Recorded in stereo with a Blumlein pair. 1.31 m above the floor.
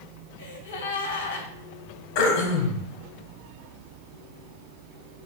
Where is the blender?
No blender in this recording.